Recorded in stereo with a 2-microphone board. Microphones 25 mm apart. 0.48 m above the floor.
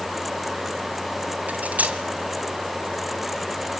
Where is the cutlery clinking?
75° right (ahead or behind), 2.5 m.